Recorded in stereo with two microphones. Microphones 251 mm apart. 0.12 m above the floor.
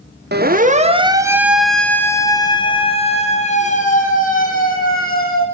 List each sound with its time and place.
0.3 s a siren: 40° right (ahead or behind), 2.5 m; by 5.4 s 35° left (ahead or behind), 7.5 m